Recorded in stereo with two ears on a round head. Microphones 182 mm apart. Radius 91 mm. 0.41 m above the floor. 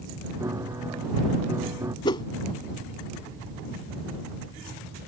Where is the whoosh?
25° left (ahead or behind).